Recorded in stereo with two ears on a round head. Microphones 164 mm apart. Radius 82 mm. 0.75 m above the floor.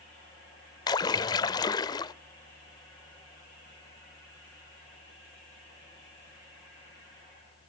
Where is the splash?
20° left (ahead or behind), 0.7 m.